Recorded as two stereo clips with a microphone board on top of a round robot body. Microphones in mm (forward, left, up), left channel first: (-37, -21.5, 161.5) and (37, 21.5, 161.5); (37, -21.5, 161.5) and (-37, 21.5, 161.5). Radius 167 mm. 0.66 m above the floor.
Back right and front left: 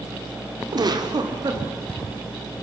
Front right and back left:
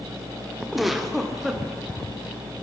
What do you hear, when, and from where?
0.7 s a giggle: 65° left, 3 m